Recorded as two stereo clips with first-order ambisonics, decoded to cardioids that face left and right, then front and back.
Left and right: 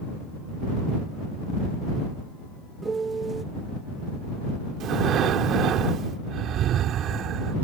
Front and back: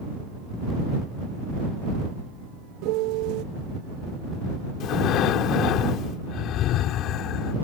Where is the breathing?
40° right.